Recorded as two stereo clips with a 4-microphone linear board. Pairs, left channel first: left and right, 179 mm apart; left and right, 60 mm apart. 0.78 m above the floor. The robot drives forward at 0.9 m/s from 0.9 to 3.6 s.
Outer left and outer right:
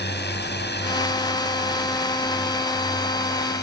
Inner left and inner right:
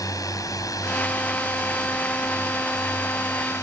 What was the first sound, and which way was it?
A drone, 75° left (ahead or behind).